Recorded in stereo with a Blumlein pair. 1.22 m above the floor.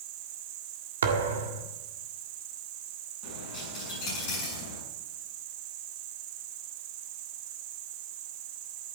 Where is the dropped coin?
35° left, 7 m.